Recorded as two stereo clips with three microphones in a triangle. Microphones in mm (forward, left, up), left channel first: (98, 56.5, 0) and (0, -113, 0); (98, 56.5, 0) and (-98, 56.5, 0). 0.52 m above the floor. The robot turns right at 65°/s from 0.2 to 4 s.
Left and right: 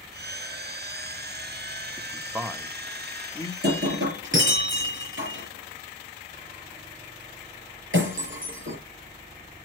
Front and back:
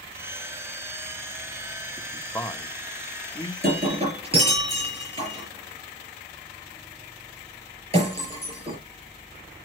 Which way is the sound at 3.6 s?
145° right.